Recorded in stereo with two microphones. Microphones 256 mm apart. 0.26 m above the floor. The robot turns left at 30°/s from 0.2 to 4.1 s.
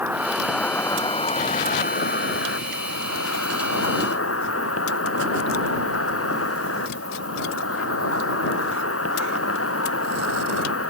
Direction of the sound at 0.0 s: 175° right.